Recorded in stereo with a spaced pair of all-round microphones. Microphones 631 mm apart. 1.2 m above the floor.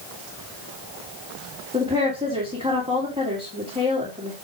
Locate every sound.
1.7 s a woman speaking: 10° right (ahead or behind), 2.5 m